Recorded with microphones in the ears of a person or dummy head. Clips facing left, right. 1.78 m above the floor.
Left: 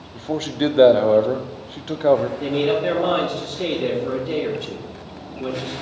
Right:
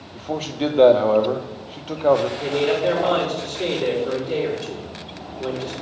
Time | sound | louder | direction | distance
0.1 | a man speaking | left 3 dB | 15° left (ahead or behind) | 0.6 m
2.4 | a man speaking | even | 55° left (ahead or behind) | 3 m